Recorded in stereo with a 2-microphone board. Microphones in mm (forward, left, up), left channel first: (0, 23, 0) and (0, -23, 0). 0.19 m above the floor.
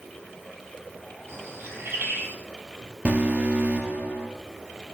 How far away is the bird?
About 2 m.